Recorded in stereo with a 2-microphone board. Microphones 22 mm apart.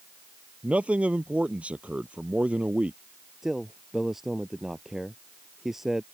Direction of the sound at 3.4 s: 20° right (ahead or behind).